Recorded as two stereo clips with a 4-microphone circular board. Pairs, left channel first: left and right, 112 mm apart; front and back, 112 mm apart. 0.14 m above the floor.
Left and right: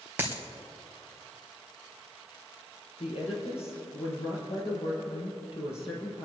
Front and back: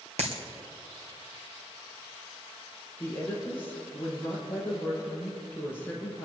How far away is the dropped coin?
About 2.5 m.